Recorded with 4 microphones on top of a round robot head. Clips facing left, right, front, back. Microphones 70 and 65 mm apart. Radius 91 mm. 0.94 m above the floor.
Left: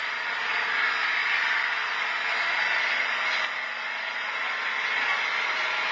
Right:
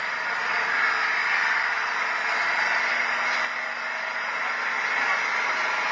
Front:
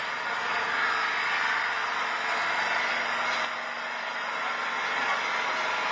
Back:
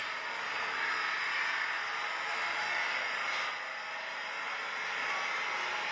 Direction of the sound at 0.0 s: 20° right.